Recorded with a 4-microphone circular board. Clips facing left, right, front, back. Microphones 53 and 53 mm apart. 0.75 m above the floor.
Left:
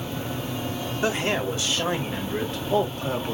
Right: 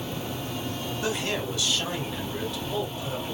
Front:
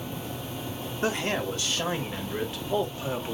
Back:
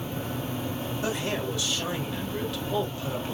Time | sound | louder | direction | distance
1.0 | a man speaking | left 5 dB, front 3 dB | 35° left | 2.5 m